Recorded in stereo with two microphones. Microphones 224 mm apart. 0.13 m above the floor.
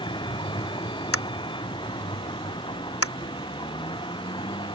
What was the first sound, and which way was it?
A vehicle, 20° left (ahead or behind).